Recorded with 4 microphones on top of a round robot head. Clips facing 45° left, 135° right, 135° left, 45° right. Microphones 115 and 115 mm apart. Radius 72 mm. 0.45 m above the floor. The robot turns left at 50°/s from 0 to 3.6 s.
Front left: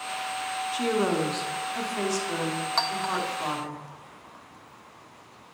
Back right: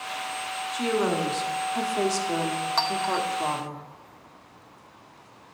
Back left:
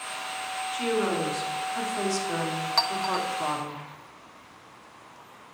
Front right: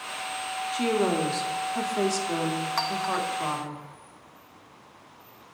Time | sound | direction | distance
0.7 | a woman speaking | 30° right | 0.9 m
2.8 | a clink | 145° left | 0.6 m